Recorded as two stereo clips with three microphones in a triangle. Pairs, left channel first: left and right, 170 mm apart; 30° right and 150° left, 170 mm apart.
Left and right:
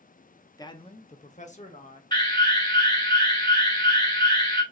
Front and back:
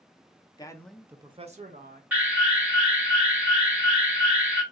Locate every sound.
0.6 s a man speaking: 25° left, 0.6 m; by 2.0 s 130° left, 1.0 m
2.1 s an alarm: 85° left, 1.5 m